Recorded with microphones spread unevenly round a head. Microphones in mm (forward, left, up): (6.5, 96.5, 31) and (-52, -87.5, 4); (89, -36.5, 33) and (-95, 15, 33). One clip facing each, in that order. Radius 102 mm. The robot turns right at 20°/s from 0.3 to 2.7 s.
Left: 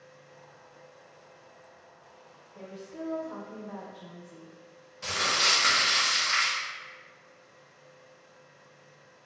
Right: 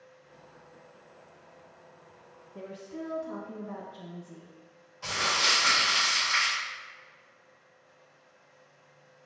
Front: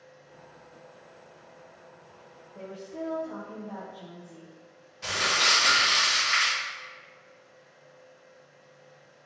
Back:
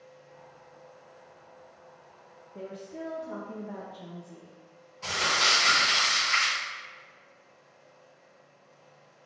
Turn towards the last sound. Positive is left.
turn(degrees=55)